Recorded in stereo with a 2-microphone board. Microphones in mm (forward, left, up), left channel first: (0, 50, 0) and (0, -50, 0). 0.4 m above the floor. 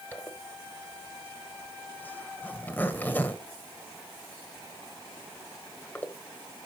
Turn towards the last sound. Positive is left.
turn(degrees=20)  # may be behind; listen again after turning